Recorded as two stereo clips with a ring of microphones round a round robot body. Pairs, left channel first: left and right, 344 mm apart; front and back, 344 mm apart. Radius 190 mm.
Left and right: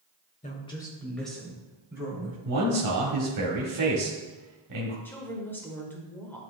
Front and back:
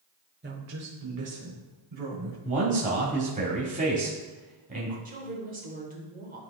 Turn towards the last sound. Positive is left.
turn(degrees=165)